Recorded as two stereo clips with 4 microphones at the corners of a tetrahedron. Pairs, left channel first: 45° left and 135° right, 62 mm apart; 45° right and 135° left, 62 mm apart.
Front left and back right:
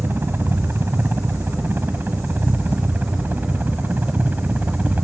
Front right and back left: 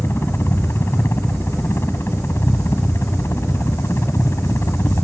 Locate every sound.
0.0 s a helicopter: 85° right; by 5.0 s 75° right